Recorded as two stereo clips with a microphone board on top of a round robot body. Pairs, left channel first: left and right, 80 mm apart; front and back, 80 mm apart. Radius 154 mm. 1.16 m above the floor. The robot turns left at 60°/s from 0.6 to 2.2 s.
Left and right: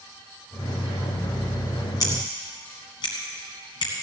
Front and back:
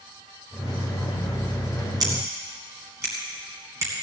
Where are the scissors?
140° left, 1.6 m; by 3.9 s 125° left, 1.6 m.